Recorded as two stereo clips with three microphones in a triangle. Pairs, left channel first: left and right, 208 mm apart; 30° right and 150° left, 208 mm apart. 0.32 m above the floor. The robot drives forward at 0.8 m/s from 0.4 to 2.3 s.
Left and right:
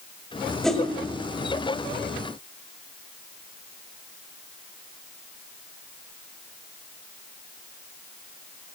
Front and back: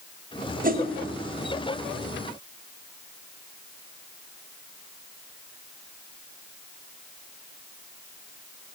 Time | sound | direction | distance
0.6 | a whoosh | 175° left | 1.5 m